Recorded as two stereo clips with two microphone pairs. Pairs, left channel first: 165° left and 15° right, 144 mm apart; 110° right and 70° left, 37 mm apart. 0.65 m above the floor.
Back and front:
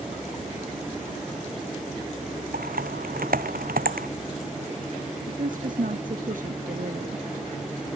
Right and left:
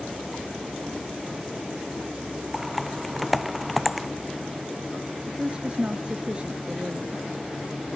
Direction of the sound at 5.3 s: 10° left.